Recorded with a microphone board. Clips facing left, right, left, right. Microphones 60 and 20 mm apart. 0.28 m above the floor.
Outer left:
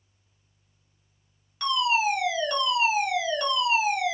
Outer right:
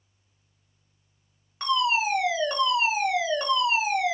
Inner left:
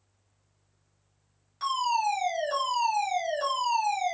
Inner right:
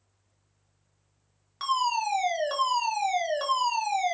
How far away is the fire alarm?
About 2.5 m.